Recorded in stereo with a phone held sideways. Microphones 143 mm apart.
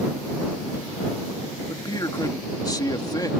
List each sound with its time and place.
1.7 s a man speaking: 25° left (ahead or behind)